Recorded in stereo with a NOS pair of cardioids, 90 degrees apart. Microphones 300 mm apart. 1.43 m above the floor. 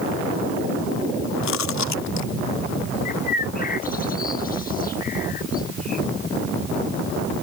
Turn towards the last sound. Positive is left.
turn(degrees=30)